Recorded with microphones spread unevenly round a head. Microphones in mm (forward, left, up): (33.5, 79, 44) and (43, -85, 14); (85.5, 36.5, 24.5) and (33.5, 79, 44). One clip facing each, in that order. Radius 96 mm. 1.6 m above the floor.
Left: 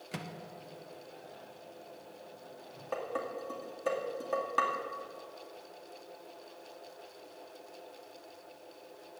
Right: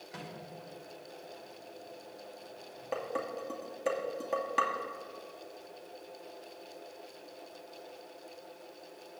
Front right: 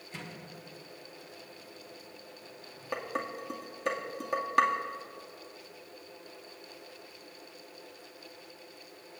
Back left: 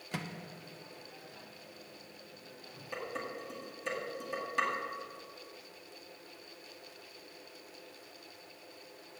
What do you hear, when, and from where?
0.1 s a microwave: 135° left, 1.1 m
2.9 s dishes clattering: 10° right, 2 m